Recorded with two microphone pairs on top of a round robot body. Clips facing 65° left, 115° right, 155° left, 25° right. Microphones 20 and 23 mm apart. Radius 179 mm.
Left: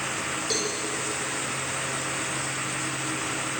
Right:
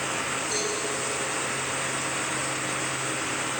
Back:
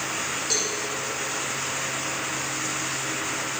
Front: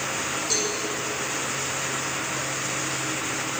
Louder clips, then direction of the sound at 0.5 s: Left 3 dB, even; 65° left.